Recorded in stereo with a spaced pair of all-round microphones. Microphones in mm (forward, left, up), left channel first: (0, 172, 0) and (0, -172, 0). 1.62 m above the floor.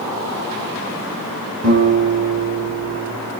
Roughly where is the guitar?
Right.